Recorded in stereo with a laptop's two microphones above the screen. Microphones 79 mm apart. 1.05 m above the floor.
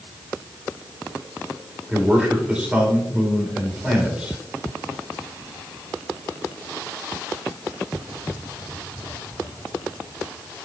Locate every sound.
1.9 s a man speaking: 15° right (ahead or behind), 3.5 m